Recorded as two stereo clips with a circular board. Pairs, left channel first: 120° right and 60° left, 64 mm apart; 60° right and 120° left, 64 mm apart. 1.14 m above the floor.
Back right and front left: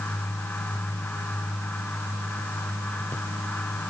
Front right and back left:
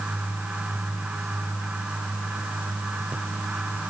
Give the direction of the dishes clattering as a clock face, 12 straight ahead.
No dishes clattering in this recording.